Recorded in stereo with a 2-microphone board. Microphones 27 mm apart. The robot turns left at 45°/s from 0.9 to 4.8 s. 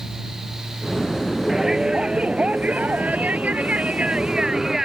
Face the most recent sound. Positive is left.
turn(degrees=-160)